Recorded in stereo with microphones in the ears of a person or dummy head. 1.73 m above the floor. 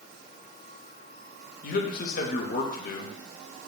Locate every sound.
1.6 s a man speaking: 55° left (ahead or behind), 0.7 m